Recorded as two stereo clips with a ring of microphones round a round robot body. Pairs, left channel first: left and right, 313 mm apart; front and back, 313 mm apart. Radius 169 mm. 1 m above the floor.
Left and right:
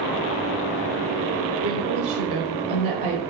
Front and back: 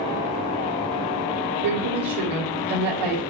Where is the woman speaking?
165° right, 2.5 m.